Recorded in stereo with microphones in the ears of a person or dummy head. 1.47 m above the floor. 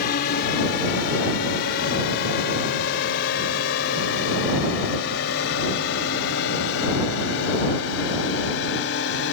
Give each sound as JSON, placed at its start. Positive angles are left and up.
{"t": 0.0, "sound": "a drone", "side_deg": 60}